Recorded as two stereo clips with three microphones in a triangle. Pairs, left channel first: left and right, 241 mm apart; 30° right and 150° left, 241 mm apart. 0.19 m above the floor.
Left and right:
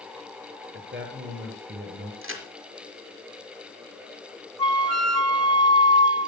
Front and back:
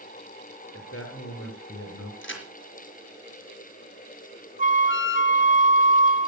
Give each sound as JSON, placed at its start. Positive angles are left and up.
{"t": 0.7, "sound": "a man speaking", "azimuth_deg": -55, "distance_m": 4.5}
{"t": 2.2, "sound": "a crack", "azimuth_deg": -65, "distance_m": 4.0}
{"t": 4.6, "sound": "a flute", "azimuth_deg": -70, "distance_m": 1.1}